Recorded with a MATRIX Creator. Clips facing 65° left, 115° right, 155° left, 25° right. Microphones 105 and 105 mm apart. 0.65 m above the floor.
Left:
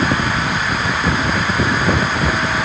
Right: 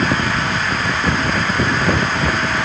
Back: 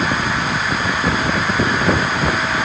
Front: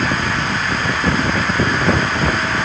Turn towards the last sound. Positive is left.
No sound to turn to.